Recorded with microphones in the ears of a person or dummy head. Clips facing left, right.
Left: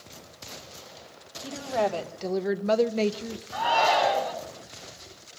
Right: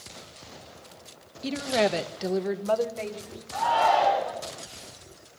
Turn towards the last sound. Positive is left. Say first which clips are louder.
# right 1 dB
turn(degrees=45)  # may be behind; listen again after turning